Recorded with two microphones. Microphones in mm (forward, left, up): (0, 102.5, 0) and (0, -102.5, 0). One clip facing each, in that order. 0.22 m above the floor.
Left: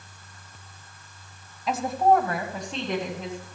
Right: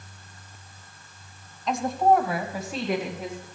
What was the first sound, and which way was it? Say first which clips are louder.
A woman speaking: even; 5° left (ahead or behind).